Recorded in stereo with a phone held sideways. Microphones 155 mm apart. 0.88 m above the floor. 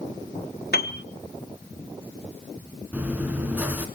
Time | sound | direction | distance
0.7 | a piano | 80° left | 1.2 m
2.9 | chewing | 10° right (ahead or behind) | 2.5 m